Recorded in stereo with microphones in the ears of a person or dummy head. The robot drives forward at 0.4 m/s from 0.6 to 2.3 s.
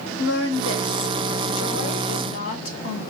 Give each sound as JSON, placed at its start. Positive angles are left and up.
{"t": 0.2, "sound": "a woman speaking", "side_deg": 70, "distance_m": 0.9}